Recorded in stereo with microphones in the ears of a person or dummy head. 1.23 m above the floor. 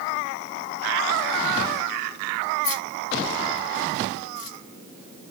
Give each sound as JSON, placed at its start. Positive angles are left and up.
{"t": 2.6, "sound": "keys jangling", "side_deg": 25, "distance_m": 2.5}